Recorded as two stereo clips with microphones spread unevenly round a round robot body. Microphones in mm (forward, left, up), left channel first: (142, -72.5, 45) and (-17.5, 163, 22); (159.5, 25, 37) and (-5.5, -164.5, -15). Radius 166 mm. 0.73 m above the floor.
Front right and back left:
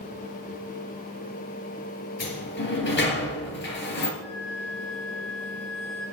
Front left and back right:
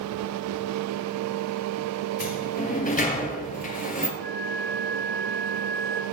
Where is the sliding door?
5° right, 3 m.